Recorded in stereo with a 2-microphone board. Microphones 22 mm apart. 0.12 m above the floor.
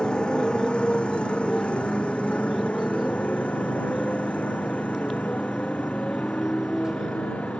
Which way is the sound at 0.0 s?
40° left (ahead or behind).